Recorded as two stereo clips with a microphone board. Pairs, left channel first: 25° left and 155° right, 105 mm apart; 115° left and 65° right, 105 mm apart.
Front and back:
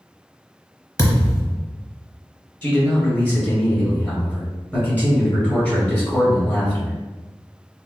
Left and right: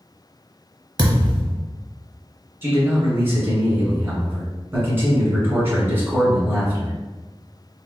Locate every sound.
1.0 s a thud: 35° right, 0.7 m
2.6 s a man speaking: 35° right, 1.5 m